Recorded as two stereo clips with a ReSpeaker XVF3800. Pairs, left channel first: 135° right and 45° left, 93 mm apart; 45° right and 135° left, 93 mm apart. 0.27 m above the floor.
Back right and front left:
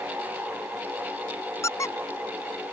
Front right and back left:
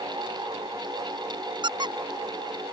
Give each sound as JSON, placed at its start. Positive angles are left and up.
{"t": 1.6, "sound": "a squeak", "azimuth_deg": 170}